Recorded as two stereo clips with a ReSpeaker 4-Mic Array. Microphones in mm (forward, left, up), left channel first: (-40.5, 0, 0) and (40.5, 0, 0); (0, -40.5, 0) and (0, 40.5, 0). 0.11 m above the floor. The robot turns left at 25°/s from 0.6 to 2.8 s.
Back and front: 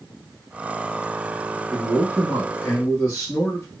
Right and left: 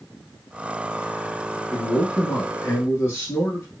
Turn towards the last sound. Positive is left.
turn(degrees=-135)